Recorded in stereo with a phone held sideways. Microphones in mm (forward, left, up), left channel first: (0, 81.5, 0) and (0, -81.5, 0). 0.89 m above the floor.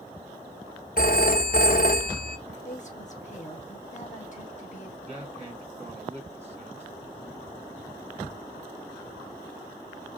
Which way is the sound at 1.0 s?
60° left (ahead or behind).